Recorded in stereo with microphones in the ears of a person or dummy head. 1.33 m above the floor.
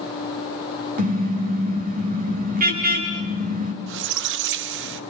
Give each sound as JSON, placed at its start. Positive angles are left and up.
{"t": 1.0, "sound": "a car horn", "side_deg": -45, "distance_m": 4.0}
{"t": 3.9, "sound": "a squeak", "side_deg": -65, "distance_m": 1.2}